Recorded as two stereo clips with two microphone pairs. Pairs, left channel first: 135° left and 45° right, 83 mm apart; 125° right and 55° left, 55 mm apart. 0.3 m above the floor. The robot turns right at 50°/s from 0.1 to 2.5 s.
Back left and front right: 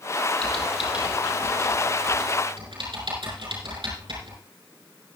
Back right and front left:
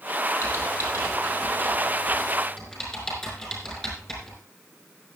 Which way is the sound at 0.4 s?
145° right.